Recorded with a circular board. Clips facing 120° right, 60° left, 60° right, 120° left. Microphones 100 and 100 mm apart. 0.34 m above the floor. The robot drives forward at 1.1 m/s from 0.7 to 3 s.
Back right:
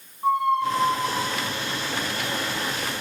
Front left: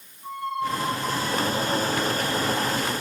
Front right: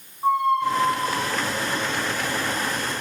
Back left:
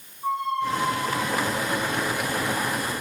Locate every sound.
0.2 s a squeak: 100° right, 1.4 m; by 2.8 s 150° right, 3 m